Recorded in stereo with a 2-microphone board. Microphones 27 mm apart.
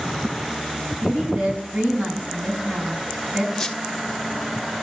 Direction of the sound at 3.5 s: 15° left (ahead or behind).